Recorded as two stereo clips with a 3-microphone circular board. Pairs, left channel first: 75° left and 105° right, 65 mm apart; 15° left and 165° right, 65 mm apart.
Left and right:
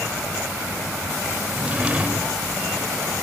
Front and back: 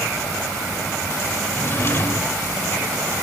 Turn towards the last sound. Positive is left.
turn(degrees=-35)